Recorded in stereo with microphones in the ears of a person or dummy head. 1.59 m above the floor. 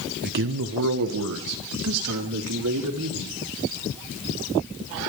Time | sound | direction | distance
0.2 | a man speaking | 45° right (ahead or behind) | 0.8 m